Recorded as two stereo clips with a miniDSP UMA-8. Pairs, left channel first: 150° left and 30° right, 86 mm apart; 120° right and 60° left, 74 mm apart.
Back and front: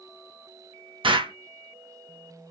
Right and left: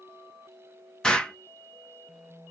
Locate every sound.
1.0 s an explosion: 40° right, 0.8 m